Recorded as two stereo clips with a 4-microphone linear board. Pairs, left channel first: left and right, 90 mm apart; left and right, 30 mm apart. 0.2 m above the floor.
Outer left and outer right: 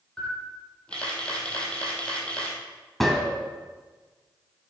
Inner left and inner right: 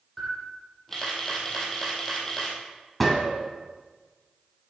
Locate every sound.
0.2 s a camera shutter: 10° left (ahead or behind), 2.5 m
3.0 s a gunshot: centre (ahead or behind), 1.6 m